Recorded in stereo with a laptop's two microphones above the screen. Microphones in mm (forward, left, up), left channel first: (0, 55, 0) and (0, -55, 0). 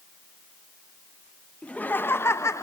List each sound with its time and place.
1.6 s laughter: 10° left (ahead or behind), 0.9 m; by 2.6 s 25° left (ahead or behind), 1.3 m